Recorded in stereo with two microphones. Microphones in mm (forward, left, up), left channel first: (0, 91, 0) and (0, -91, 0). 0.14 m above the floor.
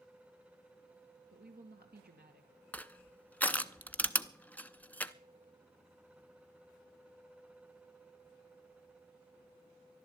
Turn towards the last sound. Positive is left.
turn(degrees=10)  # may be behind; listen again after turning